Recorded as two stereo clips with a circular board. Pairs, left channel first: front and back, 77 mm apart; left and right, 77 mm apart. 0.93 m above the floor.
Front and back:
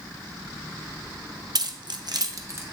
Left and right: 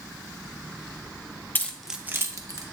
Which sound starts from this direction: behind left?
Keys jangling, at 1.6 s.